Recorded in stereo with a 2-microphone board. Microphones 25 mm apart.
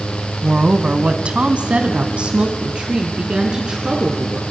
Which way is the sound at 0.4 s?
50° right (ahead or behind).